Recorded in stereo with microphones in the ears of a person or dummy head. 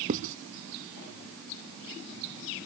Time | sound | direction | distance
0.1 | writing | 40° right (ahead or behind) | ?